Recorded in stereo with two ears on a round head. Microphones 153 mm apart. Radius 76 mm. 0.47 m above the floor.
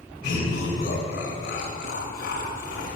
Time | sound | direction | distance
0.2 | laughter | 45° left (ahead or behind) | 2.5 m